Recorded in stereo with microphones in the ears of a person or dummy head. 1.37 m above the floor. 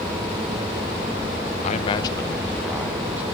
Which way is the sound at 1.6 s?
40° left (ahead or behind).